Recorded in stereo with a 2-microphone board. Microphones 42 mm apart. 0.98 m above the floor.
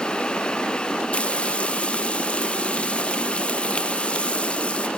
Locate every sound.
1.1 s frying: 25° left (ahead or behind), 1.6 m